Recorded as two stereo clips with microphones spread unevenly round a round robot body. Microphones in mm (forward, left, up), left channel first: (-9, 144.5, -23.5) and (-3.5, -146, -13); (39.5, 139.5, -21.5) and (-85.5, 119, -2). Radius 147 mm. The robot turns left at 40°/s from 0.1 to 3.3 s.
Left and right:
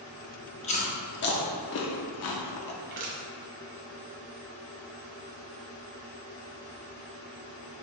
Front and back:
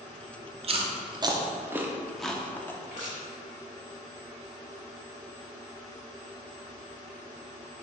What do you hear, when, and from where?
0.6 s chewing: 155° left, 0.5 m; by 2.7 s 70° left, 0.5 m
2.8 s crushing: 35° right, 0.9 m; by 3.2 s 50° right, 0.9 m